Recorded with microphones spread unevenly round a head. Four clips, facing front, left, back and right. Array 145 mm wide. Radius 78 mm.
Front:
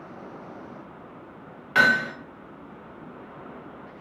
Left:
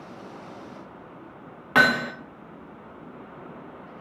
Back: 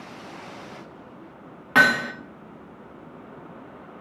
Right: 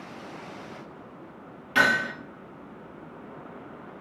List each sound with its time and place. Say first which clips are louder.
1.8 s hammering: left 3 dB, back 2 dB; 130° left, 0.9 m